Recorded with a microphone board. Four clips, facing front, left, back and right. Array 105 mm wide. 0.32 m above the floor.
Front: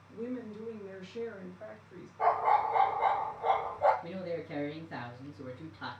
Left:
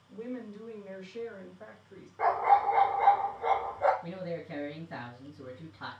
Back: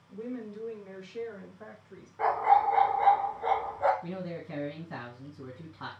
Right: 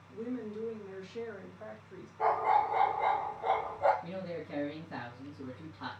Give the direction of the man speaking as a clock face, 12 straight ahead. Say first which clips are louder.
Left 2 dB, even; 6 o'clock.